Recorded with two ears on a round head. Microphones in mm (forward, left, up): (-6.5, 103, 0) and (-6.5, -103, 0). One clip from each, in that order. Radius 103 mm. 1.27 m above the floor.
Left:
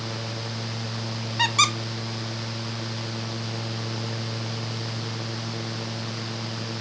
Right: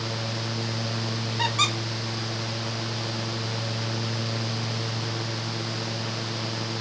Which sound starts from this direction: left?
A squeak, at 1.4 s.